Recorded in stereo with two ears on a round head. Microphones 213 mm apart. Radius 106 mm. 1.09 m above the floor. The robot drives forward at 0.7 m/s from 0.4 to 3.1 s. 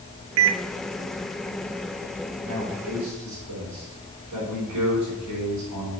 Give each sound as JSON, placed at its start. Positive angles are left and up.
{"t": 0.4, "sound": "a microwave", "side_deg": -65, "distance_m": 0.6}
{"t": 2.4, "sound": "a man speaking", "side_deg": -70, "distance_m": 5.5}